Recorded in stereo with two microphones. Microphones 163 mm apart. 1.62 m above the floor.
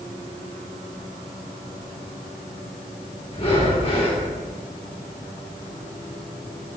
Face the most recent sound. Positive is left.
turn(degrees=35)  # may be behind; listen again after turning